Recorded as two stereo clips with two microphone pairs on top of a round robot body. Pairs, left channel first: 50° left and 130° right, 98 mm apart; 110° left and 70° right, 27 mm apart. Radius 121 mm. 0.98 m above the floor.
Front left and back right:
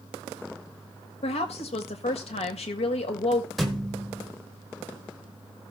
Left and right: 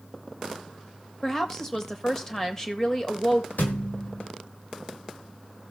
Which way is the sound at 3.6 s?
130° left.